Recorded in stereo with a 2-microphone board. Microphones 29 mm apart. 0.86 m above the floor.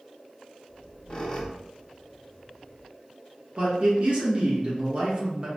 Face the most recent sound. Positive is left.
turn(degrees=-40)  # may be behind; listen again after turning